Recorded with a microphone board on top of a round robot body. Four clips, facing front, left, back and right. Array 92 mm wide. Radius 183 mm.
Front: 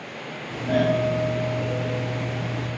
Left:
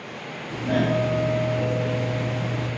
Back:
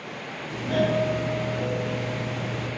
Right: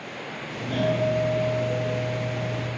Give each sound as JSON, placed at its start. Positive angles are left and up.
{"t": 0.5, "sound": "a doorbell", "azimuth_deg": 50, "distance_m": 2.5}